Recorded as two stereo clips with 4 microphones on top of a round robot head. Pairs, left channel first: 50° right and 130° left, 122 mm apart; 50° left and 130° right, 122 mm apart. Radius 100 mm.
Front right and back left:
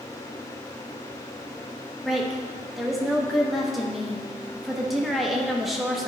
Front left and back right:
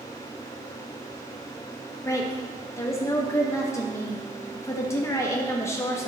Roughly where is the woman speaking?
Ahead left.